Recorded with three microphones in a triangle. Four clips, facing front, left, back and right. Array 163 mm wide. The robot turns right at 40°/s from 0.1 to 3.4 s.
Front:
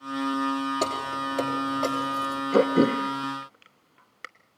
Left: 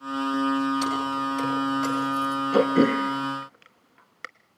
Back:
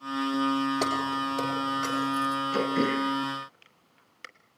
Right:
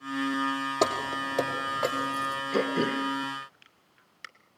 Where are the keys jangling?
95° right, 4 m; by 2.4 s 30° right, 4 m.